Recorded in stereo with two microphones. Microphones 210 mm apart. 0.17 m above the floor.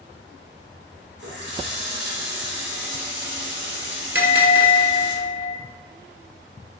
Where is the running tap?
60° right (ahead or behind), 1.9 m.